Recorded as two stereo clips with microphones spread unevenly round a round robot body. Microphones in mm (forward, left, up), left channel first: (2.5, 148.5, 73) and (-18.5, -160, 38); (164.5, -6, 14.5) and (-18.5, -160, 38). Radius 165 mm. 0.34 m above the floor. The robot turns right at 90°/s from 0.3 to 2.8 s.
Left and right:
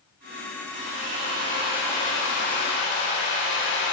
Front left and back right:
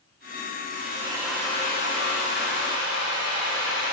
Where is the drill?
105° right, 8.5 m; by 3.9 s 85° left, 8.5 m.